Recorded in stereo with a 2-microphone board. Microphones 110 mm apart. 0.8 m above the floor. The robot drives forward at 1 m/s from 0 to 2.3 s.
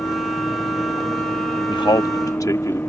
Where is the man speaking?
50° left (ahead or behind); by 2.8 s 35° left (ahead or behind).